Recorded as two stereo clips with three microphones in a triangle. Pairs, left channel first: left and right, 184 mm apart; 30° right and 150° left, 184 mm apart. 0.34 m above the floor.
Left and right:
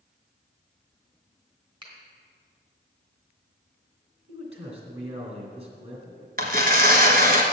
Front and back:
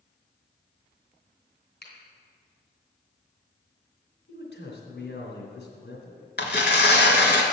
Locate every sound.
1.8 s a finger snap: 30° right, 2.5 m
4.3 s a man speaking: 35° right, 3 m
6.4 s tearing paper: 50° right, 1.5 m